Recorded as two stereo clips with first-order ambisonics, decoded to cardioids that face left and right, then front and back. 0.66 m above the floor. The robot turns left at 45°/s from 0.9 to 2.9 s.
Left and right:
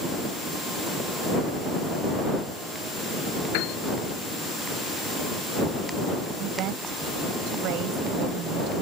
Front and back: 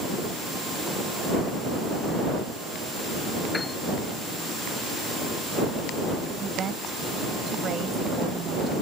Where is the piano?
80° left.